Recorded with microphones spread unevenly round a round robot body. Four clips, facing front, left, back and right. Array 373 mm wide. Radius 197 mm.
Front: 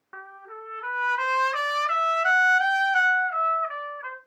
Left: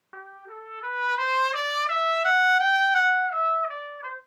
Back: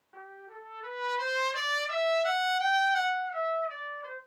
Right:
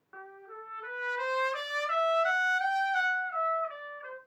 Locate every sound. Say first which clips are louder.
0.1 s a trumpet: left 4 dB, front 5 dB; 50° left, 3.5 m